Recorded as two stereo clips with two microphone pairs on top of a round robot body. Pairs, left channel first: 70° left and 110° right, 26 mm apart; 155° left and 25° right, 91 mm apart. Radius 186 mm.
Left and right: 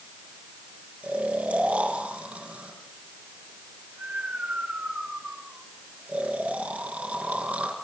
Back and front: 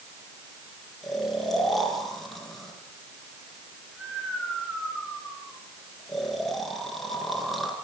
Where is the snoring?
120° right, 4.5 m.